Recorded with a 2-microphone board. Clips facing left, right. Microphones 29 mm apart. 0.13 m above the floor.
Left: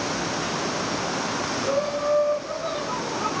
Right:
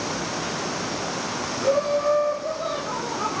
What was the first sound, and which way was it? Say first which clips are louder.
Laughter: right 5 dB; 50° right (ahead or behind).